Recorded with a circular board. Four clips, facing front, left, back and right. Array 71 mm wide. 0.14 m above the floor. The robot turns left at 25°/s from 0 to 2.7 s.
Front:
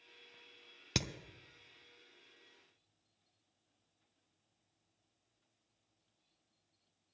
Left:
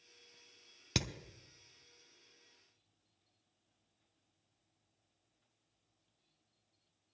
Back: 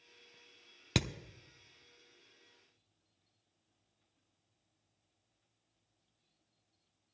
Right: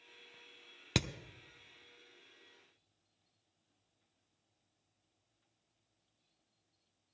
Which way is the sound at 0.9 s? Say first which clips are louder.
Right 3 dB, back 4 dB; 140° right.